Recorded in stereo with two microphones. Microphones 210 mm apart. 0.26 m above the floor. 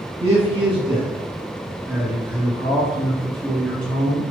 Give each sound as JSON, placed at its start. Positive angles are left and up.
{"t": 0.2, "sound": "a man speaking", "side_deg": -30, "distance_m": 1.3}